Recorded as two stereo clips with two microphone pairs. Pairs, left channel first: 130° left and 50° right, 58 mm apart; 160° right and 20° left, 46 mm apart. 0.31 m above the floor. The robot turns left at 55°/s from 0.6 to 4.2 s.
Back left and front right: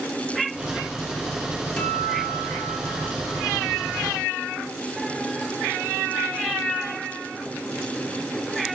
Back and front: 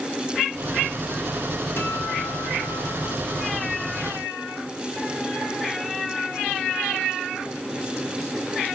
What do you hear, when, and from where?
1.8 s a guitar: 150° right, 4.5 m; by 3.8 s 95° left, 4.5 m